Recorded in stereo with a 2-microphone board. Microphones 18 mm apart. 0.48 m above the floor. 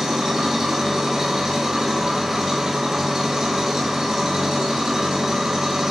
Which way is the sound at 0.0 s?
25° right (ahead or behind).